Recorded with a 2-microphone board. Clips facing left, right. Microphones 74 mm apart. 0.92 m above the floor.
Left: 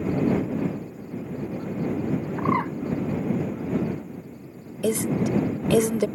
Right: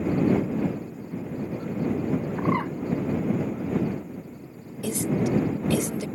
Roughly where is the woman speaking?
Left.